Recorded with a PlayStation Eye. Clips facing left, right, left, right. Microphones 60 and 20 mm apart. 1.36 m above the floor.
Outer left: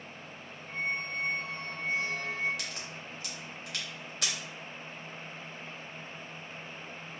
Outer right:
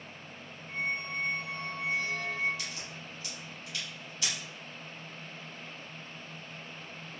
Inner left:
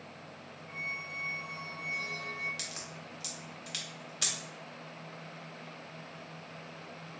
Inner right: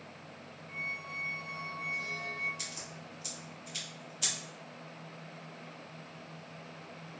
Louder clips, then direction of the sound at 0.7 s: Even, even; 30° left (ahead or behind).